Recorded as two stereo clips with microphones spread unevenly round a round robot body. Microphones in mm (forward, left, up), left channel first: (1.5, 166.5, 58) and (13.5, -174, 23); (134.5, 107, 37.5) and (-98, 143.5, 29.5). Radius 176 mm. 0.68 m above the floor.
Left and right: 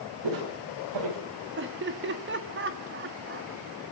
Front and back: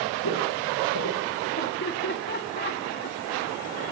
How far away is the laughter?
About 1.6 m.